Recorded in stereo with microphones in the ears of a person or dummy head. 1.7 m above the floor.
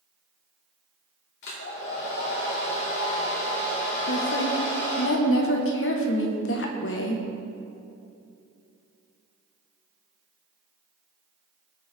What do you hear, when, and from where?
1.4 s a hair dryer: 70° left (ahead or behind), 2.5 m
4.1 s a woman speaking: 80° left, 1.4 m